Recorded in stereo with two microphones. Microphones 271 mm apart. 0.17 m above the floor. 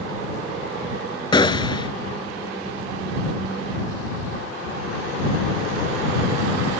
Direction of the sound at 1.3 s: 15° left (ahead or behind).